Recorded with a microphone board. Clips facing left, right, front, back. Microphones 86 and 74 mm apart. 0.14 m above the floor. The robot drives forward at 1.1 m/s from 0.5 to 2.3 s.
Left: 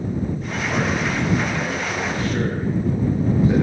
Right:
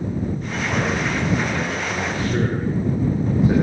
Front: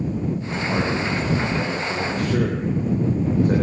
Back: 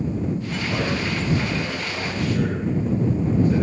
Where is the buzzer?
I don't hear a buzzer.